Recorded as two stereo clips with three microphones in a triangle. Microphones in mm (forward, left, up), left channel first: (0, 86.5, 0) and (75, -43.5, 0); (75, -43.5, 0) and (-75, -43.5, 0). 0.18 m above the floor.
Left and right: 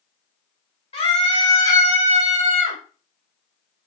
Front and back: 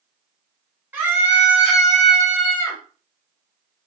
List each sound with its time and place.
0.9 s a scream: 110° left, 1.5 m; by 2.8 s 55° right, 1.1 m